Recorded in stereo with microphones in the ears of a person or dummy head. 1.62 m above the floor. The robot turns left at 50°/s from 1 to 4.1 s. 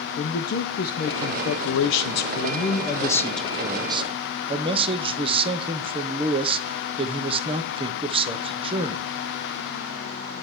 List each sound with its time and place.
0.2 s a man speaking: 125° left, 0.9 m; by 9.0 s 30° right, 0.9 m